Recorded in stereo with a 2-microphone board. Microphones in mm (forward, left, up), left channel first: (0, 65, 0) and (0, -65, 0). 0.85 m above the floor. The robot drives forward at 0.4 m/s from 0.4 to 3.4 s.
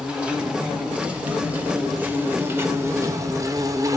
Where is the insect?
10° right (ahead or behind), 1.5 m; by 4.0 s 25° right (ahead or behind), 0.5 m.